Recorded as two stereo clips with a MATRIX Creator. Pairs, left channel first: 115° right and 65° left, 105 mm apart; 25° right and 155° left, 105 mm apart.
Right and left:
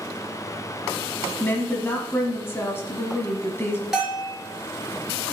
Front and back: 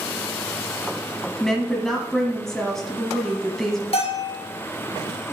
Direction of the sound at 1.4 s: 105° right.